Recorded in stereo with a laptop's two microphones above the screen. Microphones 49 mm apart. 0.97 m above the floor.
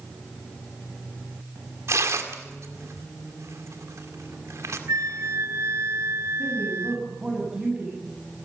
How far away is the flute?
About 0.8 m.